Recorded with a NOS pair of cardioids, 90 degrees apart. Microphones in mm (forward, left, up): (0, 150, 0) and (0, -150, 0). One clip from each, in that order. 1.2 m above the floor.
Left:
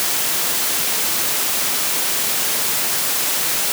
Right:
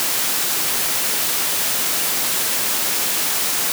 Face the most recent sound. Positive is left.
No sound to turn to.